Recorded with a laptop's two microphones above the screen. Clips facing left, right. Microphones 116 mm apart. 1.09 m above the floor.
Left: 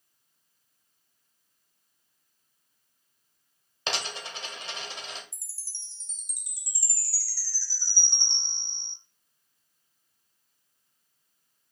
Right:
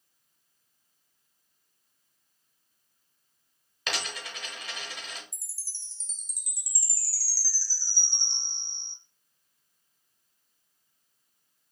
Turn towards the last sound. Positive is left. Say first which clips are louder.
# even
turn(degrees=60)  # may be behind; listen again after turning